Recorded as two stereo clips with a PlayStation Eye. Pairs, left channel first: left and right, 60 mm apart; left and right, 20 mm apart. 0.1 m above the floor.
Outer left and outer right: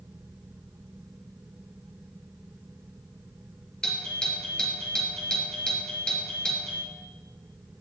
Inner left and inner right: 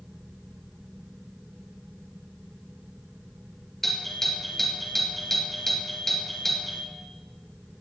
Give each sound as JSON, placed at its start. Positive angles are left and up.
{"t": 3.8, "sound": "a doorbell", "side_deg": 15, "distance_m": 2.5}